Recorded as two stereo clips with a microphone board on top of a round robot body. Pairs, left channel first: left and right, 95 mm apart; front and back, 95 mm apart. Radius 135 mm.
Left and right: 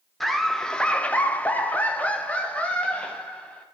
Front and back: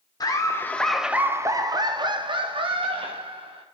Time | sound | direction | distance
0.2 | laughter | 5° left | 1.3 m